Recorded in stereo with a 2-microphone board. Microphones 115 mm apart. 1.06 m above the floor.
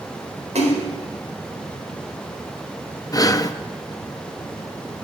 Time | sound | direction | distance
0.6 | a splash | 85° right | 4 m
3.1 | breathing | 30° left (ahead or behind) | 0.5 m